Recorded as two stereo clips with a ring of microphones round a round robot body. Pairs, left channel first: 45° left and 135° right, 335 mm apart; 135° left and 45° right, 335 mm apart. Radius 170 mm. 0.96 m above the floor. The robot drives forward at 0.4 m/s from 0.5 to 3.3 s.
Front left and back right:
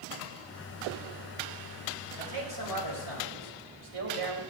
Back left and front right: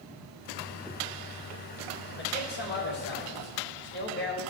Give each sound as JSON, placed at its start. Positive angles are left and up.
{"t": 2.2, "sound": "a man speaking", "azimuth_deg": -165, "distance_m": 5.0}